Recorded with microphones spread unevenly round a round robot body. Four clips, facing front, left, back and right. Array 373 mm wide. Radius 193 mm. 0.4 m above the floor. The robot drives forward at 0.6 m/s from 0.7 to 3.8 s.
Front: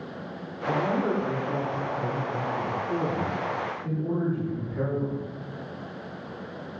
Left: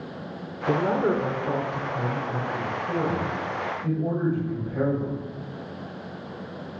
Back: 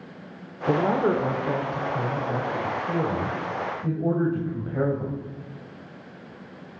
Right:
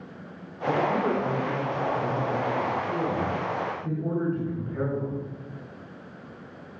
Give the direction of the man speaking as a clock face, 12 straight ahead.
7 o'clock.